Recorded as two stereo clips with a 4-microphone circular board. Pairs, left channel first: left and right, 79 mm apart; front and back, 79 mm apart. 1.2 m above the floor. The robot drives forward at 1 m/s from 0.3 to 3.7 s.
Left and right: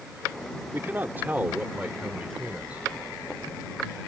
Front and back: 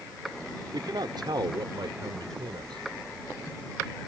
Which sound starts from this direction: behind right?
A man speaking, at 0.7 s.